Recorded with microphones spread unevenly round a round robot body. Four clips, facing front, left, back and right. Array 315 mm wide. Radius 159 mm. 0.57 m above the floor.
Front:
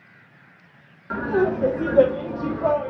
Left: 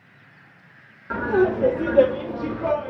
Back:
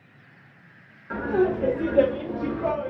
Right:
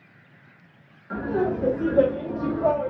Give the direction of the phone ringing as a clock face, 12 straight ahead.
No phone ringing in this recording.